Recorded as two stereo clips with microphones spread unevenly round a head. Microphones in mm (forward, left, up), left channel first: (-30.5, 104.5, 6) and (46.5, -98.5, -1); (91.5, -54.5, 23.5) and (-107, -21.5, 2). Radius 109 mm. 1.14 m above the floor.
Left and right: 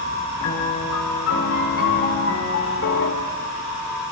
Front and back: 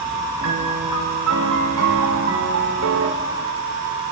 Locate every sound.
0.4 s a piano: 145° left, 3 m